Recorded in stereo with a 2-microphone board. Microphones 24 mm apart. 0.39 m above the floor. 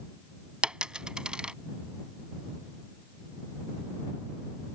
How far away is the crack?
No crack in this recording.